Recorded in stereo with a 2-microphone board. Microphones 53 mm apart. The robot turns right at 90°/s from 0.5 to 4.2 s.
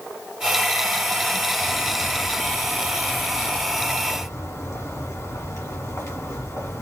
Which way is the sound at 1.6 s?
140° right.